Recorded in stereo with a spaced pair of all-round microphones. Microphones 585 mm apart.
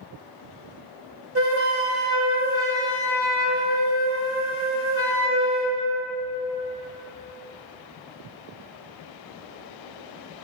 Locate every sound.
1.4 s a flute: 25° right (ahead or behind), 1.1 m